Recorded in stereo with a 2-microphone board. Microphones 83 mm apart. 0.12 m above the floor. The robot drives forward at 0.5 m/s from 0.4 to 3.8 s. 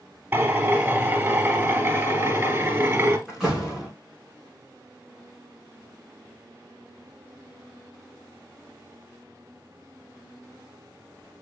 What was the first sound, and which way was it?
A drill, 20° right (ahead or behind).